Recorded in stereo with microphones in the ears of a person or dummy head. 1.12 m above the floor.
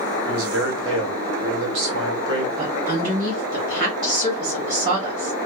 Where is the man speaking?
70° right (ahead or behind), 1.4 m.